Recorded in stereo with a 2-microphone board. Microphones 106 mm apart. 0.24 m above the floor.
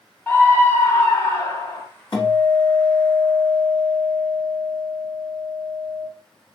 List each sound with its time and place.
0.3 s a scream: 20° left (ahead or behind), 1.1 m; by 1.9 s 40° left (ahead or behind), 1.2 m
2.1 s a guitar: 55° left (ahead or behind), 2.5 m